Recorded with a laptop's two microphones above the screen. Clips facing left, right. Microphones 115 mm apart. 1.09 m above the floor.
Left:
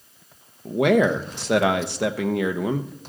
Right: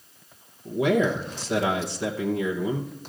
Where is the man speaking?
70° left (ahead or behind), 0.9 m.